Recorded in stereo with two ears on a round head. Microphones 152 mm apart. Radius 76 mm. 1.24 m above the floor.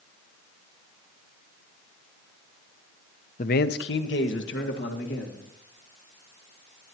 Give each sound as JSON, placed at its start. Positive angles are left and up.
{"t": 3.4, "sound": "a man speaking", "side_deg": 45, "distance_m": 0.6}